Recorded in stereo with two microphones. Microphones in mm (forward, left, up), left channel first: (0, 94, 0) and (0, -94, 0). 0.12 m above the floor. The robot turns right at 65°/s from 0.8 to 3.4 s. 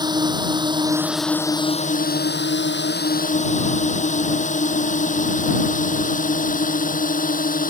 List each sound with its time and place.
0.0 s a drone: 20° right (ahead or behind); by 7.7 s 45° left (ahead or behind)